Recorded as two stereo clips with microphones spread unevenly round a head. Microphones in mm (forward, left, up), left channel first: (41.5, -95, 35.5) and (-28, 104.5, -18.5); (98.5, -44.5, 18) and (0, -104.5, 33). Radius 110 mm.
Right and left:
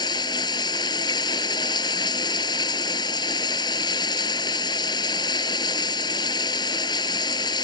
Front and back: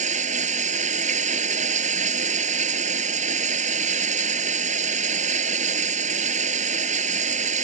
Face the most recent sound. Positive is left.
turn(degrees=-140)